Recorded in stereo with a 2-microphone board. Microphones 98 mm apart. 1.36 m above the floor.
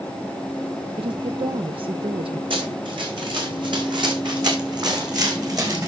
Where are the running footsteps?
60° right (ahead or behind), 3.5 m; by 5.9 s 40° right (ahead or behind), 3 m.